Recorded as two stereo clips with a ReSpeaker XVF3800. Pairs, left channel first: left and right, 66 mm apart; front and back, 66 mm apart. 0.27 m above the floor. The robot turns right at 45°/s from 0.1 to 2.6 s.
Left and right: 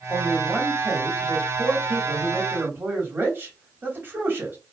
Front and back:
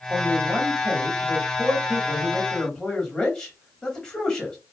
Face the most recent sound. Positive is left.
turn(degrees=-70)